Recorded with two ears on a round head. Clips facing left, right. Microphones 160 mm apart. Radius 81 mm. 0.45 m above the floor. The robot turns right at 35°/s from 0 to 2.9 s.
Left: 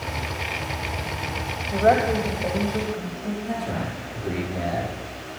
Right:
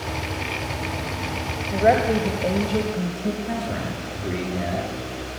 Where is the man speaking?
5° right (ahead or behind), 9.5 m.